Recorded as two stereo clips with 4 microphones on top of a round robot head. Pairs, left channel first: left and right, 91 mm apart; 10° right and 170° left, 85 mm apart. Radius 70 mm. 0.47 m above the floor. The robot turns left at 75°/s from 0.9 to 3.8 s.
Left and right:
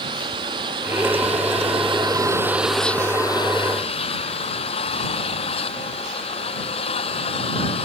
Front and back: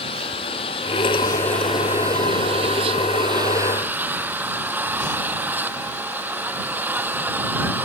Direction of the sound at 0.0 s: 40° right.